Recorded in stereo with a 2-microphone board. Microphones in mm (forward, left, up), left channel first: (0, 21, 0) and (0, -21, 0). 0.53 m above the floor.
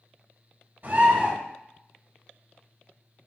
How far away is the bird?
About 2.5 m.